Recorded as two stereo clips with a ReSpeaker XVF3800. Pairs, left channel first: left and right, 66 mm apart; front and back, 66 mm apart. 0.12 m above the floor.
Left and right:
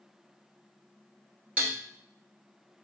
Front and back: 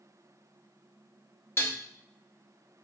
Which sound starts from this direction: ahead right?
Dishes clattering, at 1.6 s.